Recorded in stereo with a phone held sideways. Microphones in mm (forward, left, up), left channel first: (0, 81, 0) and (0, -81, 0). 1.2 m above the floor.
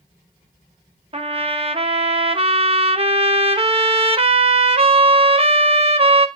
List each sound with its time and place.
1.1 s a trumpet: 35° right (ahead or behind), 0.7 m